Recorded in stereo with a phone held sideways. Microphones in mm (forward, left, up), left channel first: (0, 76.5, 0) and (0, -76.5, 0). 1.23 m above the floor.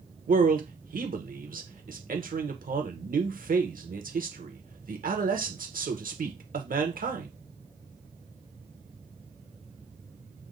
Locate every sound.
0.3 s a man speaking: 65° right (ahead or behind), 0.8 m